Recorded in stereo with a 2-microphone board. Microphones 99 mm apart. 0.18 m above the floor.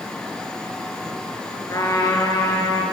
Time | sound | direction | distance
1.7 | a trumpet | 35° left (ahead or behind) | 3 m